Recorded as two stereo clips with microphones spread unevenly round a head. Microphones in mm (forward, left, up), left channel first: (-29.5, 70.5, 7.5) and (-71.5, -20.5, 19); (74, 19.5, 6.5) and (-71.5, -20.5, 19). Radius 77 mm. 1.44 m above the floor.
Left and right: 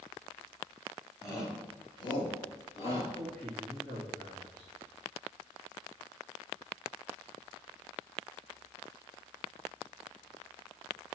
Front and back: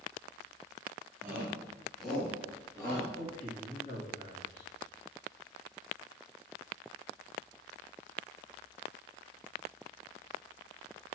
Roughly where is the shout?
Behind left.